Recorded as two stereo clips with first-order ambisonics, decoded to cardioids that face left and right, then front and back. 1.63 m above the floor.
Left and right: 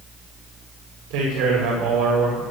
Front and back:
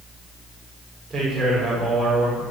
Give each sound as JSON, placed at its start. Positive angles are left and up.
{"t": 1.1, "sound": "a man speaking", "azimuth_deg": -105, "distance_m": 5.5}